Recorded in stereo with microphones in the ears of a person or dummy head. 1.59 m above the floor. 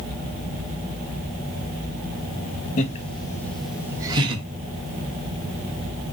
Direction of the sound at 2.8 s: 50° left (ahead or behind).